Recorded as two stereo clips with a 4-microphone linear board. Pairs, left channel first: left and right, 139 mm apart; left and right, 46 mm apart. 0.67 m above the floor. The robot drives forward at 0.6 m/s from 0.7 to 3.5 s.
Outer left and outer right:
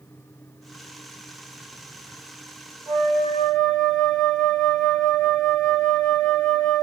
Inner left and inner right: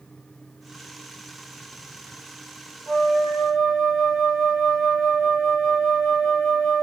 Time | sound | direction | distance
2.9 | a flute | 5° left (ahead or behind) | 1.5 m